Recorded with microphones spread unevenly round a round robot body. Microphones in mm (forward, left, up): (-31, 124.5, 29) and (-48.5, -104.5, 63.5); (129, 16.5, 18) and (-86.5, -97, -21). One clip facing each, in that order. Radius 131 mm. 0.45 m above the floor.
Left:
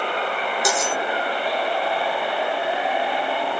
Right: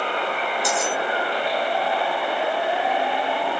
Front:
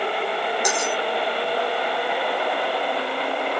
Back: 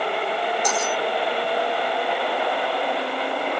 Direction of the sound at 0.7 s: 105° left.